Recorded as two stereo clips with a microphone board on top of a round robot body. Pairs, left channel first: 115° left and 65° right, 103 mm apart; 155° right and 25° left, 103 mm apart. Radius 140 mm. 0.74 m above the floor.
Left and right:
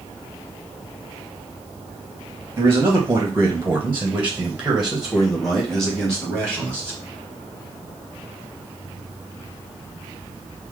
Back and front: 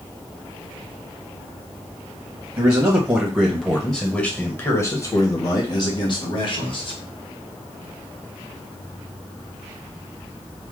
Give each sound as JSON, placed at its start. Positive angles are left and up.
{"t": 2.6, "sound": "a man speaking", "azimuth_deg": -20, "distance_m": 1.4}